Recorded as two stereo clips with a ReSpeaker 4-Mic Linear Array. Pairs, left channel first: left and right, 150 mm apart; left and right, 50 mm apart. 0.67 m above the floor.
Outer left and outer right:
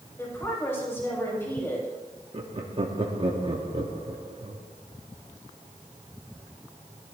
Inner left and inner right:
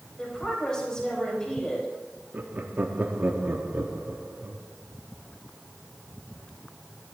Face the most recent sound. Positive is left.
turn(degrees=-35)  # may be behind; listen again after turning